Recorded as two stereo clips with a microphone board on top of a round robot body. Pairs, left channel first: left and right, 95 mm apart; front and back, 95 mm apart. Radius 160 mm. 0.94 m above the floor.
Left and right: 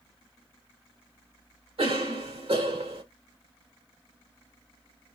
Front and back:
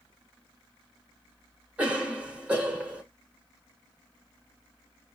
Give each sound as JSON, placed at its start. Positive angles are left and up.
{"t": 1.8, "sound": "a cough", "azimuth_deg": -105, "distance_m": 3.0}